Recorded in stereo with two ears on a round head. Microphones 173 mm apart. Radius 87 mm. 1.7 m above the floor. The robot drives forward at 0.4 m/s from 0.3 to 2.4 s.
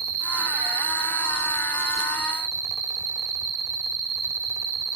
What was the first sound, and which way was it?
An insect, 50° right (ahead or behind).